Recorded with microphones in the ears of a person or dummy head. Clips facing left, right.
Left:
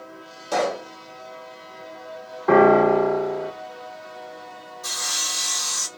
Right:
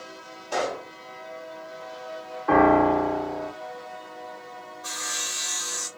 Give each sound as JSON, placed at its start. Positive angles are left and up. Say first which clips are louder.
{"t": 0.5, "sound": "a pop", "louder": "left 5 dB", "side_deg": 65, "distance_m": 1.3}
{"t": 2.5, "sound": "a piano", "louder": "left 4 dB", "side_deg": 40, "distance_m": 0.8}
{"t": 4.8, "sound": "sawing", "louder": "left 2 dB", "side_deg": 60, "distance_m": 0.9}